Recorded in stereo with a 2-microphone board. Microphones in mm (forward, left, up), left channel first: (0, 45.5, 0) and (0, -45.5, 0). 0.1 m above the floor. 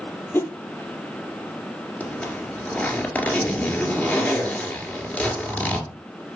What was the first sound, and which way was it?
A whoosh, 25° left (ahead or behind).